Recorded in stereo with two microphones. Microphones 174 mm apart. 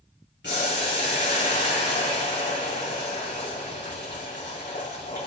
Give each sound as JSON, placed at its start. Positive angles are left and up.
{"t": 0.4, "sound": "boiling", "side_deg": 85, "distance_m": 4.0}